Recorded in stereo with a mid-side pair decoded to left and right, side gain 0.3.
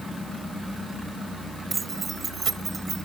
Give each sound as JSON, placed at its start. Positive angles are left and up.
{"t": 1.7, "sound": "keys jangling", "azimuth_deg": -50}